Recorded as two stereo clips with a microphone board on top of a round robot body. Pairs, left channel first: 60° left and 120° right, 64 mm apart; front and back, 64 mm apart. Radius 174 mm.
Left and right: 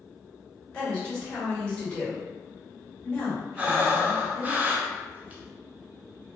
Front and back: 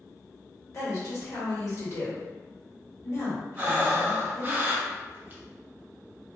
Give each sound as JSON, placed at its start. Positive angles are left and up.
{"t": 0.7, "sound": "a woman speaking", "azimuth_deg": -10, "distance_m": 1.9}
{"t": 3.6, "sound": "breathing", "azimuth_deg": -165, "distance_m": 0.9}